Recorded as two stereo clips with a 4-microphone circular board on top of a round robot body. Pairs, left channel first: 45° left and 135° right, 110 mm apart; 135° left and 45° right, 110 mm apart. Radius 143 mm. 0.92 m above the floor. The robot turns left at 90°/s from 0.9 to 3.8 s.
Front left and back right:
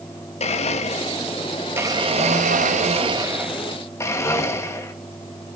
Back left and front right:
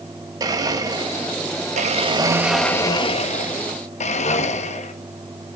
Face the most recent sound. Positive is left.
turn(degrees=110)